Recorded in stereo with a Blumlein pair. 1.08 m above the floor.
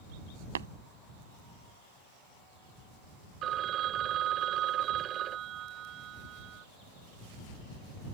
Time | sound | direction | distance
0.6 | tapping | 65° right | ?
3.4 | a phone ringing | 30° right | ?